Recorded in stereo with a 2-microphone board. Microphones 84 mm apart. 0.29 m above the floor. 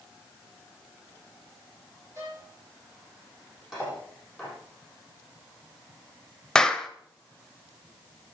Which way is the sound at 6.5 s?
10° left (ahead or behind).